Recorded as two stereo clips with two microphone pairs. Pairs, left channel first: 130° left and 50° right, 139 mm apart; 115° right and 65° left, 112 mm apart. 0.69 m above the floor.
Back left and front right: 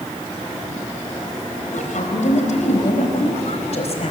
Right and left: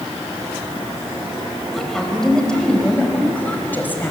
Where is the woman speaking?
155° left, 4 m; by 4.1 s 175° left, 4.5 m.